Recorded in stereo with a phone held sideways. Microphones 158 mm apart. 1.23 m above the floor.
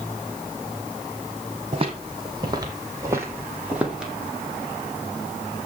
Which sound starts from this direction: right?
Footsteps, at 1.7 s.